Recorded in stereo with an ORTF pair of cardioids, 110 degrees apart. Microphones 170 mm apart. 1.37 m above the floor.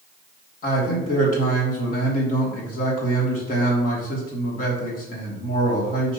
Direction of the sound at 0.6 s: 50° left.